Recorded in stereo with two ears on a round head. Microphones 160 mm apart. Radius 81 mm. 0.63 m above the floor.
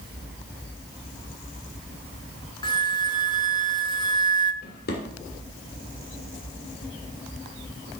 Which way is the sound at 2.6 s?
25° left (ahead or behind).